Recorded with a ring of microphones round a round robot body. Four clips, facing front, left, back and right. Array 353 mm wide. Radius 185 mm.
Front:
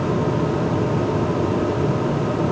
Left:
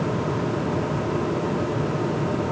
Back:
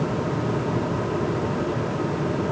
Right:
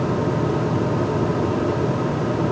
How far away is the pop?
I don't hear a pop.